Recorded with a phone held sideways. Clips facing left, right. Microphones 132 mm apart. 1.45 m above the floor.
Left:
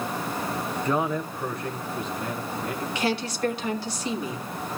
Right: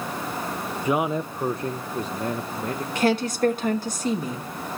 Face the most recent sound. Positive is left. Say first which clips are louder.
# right 7 dB
turn(degrees=-45)  # may be behind; listen again after turning